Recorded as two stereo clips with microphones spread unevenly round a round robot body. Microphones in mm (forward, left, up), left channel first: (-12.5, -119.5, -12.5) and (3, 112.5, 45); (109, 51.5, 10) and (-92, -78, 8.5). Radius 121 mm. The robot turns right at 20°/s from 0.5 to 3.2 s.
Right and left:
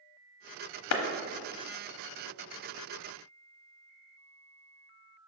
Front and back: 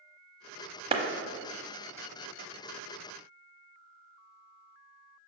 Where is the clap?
80° right, 0.8 m; by 1.0 s 75° right, 0.8 m.